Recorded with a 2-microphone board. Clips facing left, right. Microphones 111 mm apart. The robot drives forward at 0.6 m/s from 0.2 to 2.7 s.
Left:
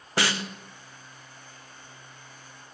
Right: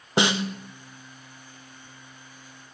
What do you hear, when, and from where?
0.2 s a snare drum: 20° right (ahead or behind), 0.6 m